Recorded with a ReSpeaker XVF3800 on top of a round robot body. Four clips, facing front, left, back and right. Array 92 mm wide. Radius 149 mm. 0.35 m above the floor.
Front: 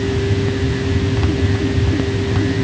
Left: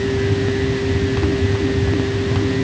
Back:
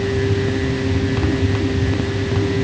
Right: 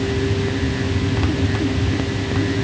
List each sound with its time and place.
Only background noise.